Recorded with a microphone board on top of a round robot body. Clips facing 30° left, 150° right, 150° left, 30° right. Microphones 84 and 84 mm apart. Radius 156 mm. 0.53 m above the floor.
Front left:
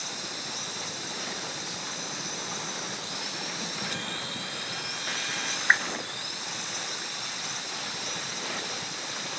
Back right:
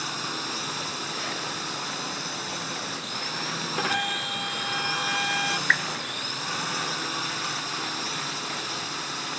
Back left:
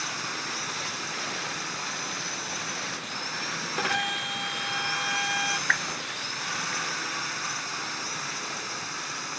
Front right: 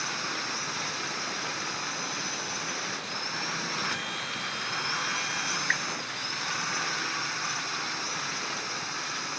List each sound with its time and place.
0.0 s a drone: 120° right
3.8 s a violin: straight behind
5.7 s a whoosh: 105° left